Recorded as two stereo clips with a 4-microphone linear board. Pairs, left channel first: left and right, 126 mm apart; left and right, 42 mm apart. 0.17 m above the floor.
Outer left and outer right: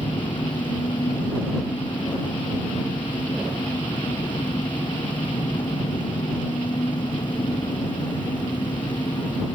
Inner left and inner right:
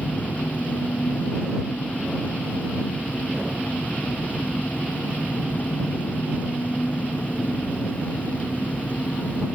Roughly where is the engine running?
Left.